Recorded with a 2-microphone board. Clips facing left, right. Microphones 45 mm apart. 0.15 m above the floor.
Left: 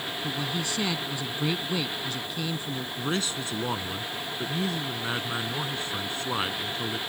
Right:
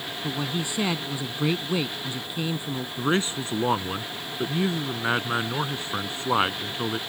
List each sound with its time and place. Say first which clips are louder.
0.2 s a man speaking: right 3 dB; 20° right (ahead or behind)
3.0 s a man speaking: right 6 dB; 30° right (ahead or behind)